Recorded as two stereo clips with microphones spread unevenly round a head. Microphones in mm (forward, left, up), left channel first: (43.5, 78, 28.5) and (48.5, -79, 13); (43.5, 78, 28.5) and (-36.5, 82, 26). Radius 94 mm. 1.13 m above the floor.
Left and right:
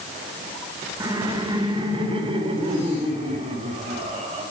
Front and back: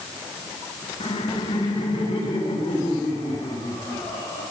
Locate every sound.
1.0 s laughter: 20° right, 2 m; by 4.4 s 40° right, 6 m